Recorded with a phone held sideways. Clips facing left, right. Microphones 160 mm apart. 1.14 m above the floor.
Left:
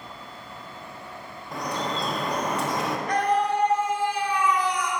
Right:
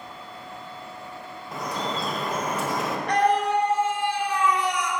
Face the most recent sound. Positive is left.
turn(degrees=-75)  # may be behind; listen again after turning